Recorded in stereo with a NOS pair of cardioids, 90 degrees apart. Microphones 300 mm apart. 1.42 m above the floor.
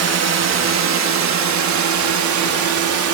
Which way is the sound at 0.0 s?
55° right.